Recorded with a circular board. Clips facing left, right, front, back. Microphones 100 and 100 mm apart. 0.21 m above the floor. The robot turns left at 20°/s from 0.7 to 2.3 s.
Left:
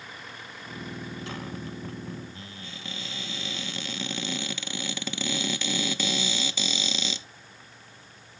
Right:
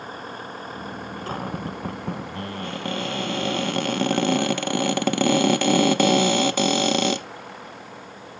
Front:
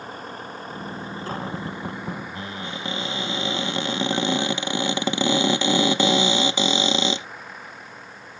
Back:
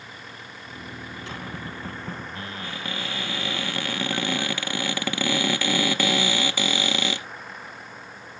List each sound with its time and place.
0.0 s a vehicle: 45° right; by 8.4 s 90° right
1.3 s a cupboard door: 45° right; by 7.3 s 65° right